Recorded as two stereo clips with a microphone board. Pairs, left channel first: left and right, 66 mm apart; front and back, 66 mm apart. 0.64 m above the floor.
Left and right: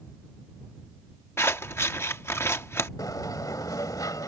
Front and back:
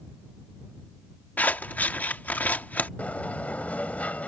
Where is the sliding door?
70° left.